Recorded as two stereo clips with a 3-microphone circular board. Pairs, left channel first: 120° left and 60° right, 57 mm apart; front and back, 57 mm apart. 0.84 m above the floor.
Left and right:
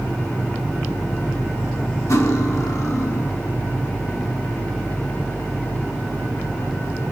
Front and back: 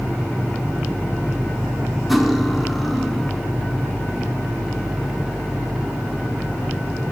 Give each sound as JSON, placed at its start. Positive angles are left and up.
{"t": 2.1, "sound": "cutlery clinking", "azimuth_deg": 90, "distance_m": 1.1}